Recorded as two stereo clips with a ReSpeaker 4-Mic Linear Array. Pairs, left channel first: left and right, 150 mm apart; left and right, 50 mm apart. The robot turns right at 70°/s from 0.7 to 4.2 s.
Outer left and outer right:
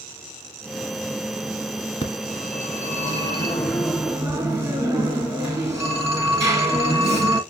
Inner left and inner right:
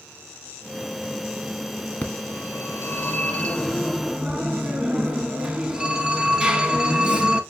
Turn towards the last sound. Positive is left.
turn(degrees=-155)